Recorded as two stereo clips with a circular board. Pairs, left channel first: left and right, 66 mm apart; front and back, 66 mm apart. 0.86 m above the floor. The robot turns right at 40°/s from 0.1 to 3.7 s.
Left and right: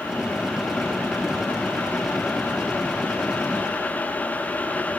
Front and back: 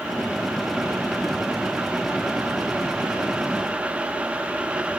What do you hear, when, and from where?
Only background noise.